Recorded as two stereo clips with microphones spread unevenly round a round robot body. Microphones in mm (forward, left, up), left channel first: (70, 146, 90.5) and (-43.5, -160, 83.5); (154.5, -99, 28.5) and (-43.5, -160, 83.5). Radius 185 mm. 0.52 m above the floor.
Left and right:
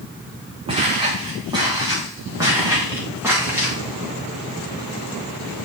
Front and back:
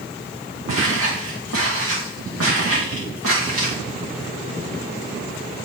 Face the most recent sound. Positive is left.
turn(degrees=165)